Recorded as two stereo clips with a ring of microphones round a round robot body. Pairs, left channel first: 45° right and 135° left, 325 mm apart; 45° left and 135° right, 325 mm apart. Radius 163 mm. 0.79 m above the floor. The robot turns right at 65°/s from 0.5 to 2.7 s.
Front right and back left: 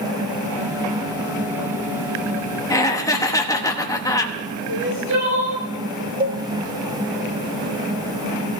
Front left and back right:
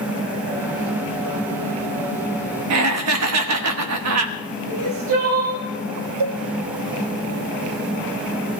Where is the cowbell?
160° right, 1.2 m.